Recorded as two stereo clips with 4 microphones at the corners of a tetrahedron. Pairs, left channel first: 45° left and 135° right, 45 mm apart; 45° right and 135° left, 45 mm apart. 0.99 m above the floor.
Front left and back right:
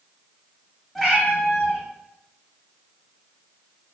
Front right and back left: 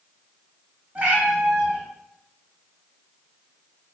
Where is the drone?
No drone in this recording.